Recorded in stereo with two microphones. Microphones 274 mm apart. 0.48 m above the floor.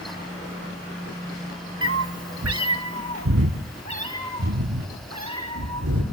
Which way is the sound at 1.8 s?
50° right (ahead or behind).